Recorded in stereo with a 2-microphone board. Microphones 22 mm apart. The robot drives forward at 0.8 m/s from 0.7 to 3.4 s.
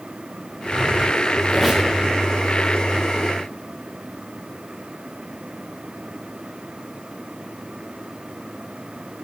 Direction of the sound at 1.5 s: Centre (ahead or behind).